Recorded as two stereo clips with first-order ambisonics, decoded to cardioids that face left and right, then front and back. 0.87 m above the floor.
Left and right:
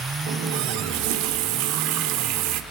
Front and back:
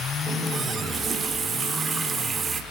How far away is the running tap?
About 1.5 m.